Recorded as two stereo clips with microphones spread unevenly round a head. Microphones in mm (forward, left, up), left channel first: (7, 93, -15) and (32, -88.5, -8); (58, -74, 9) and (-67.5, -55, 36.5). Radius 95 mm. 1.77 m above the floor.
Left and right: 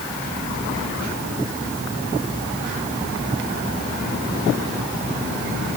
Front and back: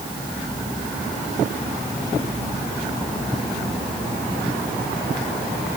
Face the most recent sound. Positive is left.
No sound to turn to.